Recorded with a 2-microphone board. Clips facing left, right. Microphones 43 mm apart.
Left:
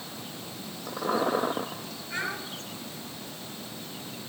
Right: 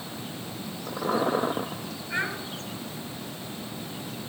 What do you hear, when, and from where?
2.1 s a child speaking: 15° right (ahead or behind), 2.5 m